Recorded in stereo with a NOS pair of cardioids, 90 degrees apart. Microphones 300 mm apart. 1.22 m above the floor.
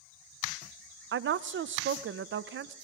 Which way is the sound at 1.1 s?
40° right.